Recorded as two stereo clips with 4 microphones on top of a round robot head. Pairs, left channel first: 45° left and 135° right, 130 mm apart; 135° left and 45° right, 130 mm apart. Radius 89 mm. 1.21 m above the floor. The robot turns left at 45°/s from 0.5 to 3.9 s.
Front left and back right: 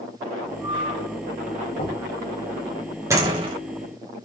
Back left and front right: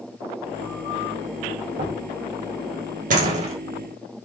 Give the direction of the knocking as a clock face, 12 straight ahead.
12 o'clock.